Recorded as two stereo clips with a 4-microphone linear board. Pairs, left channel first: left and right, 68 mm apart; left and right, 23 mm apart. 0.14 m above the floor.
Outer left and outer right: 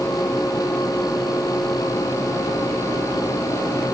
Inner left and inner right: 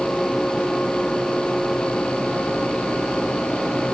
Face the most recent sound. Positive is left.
No sound to turn to.